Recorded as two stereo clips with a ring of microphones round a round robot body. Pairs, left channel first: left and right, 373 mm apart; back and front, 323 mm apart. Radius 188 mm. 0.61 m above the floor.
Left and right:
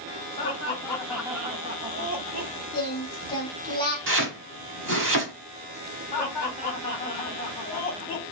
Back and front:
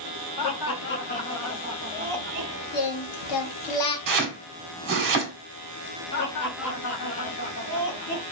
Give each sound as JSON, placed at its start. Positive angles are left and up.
{"t": 0.4, "sound": "laughter", "azimuth_deg": 165, "distance_m": 1.0}
{"t": 2.7, "sound": "singing", "azimuth_deg": 170, "distance_m": 0.7}
{"t": 4.1, "sound": "chopping", "azimuth_deg": -30, "distance_m": 1.0}
{"t": 6.1, "sound": "laughter", "azimuth_deg": 175, "distance_m": 1.7}